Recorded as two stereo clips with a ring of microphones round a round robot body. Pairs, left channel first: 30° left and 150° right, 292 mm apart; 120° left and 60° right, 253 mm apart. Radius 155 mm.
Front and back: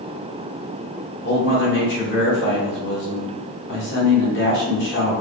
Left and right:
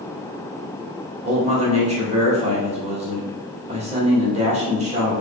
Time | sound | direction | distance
1.2 | a man speaking | 5° right | 1.7 m